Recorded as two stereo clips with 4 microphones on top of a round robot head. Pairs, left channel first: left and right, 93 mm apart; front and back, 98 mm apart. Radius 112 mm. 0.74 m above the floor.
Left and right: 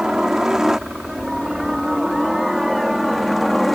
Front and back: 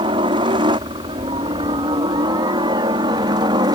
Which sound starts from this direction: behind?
A helicopter, at 0.0 s.